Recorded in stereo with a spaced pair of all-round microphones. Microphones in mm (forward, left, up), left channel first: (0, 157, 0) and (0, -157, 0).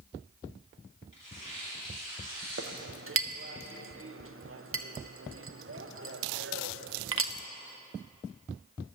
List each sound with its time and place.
1.1 s tearing paper: 75° left (ahead or behind), 4.5 m
2.6 s a clink: 45° right (ahead or behind), 0.6 m